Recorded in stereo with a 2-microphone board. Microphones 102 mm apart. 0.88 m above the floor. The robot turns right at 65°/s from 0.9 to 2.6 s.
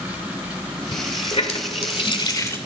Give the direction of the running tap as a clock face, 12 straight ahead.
10 o'clock.